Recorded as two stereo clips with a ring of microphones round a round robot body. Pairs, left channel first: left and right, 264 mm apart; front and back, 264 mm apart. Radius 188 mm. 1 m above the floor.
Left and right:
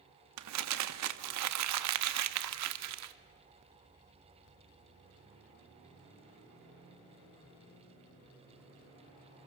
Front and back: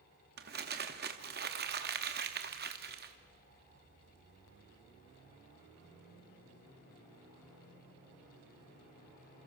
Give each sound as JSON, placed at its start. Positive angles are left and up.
{"t": 0.4, "sound": "crumpling", "azimuth_deg": -120, "distance_m": 0.6}